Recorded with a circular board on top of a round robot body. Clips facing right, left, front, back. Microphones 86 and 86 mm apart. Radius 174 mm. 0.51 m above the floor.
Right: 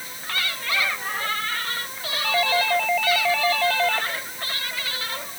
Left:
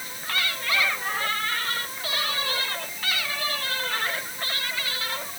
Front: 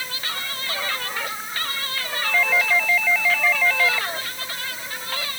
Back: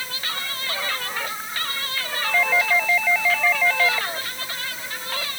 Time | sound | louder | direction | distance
2.2 | a doorbell | right 13 dB, even | 100° right | ?